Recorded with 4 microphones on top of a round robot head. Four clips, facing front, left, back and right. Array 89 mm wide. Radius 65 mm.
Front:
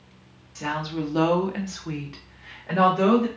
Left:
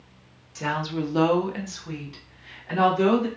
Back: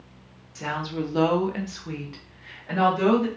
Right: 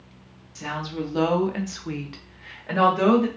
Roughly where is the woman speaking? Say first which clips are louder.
Left 3 dB, front 1 dB; left.